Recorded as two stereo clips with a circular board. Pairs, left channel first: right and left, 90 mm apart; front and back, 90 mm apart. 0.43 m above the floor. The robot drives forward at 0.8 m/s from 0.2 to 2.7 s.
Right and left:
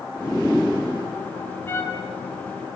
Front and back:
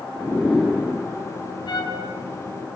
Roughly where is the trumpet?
Ahead right.